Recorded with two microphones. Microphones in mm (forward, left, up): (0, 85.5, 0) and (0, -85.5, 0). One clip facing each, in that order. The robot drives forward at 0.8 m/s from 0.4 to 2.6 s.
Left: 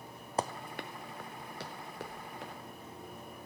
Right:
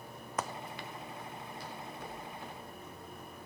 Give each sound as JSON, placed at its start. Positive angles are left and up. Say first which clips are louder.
{"t": 0.4, "sound": "running footsteps", "louder": "left 3 dB", "side_deg": 30, "distance_m": 0.6}